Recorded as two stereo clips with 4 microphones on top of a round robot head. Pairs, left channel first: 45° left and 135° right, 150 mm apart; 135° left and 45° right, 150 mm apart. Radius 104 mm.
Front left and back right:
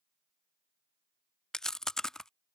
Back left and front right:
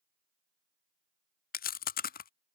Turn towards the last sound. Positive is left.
turn(degrees=130)